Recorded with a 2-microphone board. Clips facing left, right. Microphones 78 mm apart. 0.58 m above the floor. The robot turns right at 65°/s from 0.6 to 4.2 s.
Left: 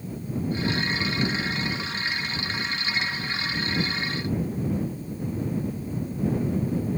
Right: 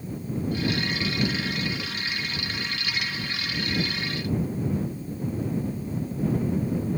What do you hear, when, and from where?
Only background noise.